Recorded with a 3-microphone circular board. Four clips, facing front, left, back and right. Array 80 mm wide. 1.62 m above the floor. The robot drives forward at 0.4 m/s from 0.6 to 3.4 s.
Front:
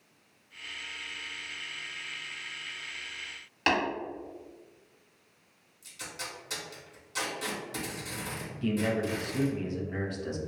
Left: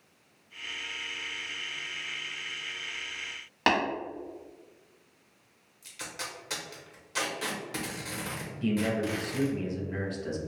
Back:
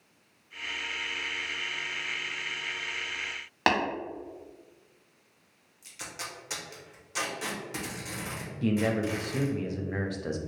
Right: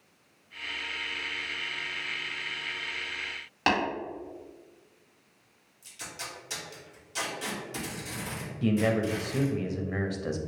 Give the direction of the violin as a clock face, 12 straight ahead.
No violin in this recording.